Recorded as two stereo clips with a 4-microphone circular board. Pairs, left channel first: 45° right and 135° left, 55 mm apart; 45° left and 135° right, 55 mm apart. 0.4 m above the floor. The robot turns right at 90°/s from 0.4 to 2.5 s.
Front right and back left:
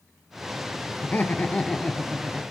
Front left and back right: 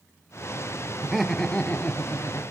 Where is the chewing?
No chewing in this recording.